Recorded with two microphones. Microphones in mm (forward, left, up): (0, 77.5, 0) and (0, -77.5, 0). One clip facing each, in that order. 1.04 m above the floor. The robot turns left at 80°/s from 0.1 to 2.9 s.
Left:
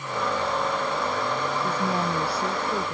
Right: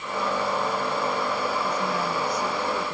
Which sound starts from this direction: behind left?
A woman speaking, at 1.6 s.